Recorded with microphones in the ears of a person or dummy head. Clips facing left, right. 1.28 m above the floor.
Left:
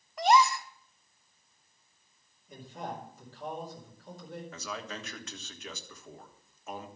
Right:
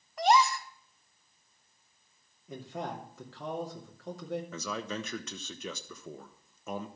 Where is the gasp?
75° left (ahead or behind), 1.2 m.